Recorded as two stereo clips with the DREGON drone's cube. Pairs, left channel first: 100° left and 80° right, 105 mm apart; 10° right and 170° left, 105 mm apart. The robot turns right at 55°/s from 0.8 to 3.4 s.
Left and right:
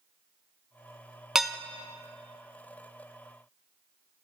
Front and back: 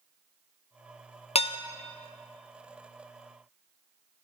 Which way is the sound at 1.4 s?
5° left.